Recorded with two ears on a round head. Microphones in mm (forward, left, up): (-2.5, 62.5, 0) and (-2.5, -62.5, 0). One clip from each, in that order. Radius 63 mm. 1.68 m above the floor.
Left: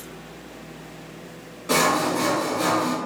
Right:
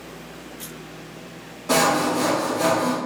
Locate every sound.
1.7 s sawing: 10° left (ahead or behind), 1.4 m